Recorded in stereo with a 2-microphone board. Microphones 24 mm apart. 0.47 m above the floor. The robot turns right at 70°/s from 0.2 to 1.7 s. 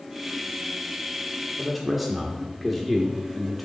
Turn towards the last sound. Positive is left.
turn(degrees=0)  # may be behind; listen again after turning